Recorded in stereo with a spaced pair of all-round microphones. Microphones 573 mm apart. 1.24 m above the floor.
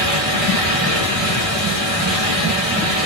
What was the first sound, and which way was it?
A fan, 80° left.